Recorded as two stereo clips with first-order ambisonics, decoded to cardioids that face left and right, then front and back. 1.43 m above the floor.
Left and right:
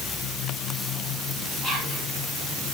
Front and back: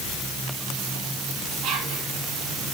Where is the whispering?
170° left, 3.5 m.